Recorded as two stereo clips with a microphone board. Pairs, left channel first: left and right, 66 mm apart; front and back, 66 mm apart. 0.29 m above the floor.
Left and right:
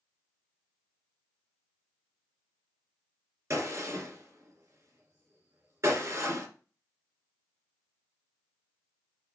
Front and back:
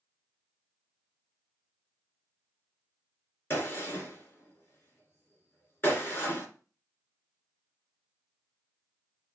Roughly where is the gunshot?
Ahead right.